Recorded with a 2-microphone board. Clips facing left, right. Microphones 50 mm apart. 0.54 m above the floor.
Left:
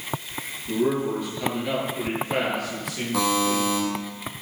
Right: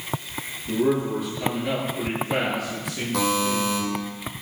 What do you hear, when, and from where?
0.7 s a man speaking: centre (ahead or behind), 10 m
3.1 s a buzzer: 5° left (ahead or behind), 8 m